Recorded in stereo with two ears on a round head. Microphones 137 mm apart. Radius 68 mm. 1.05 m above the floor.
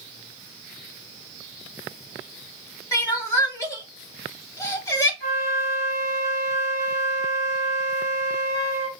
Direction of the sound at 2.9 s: 20° left (ahead or behind).